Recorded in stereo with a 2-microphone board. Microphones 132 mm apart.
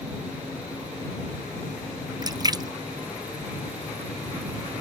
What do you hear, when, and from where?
2.2 s a splash: 30° right (ahead or behind)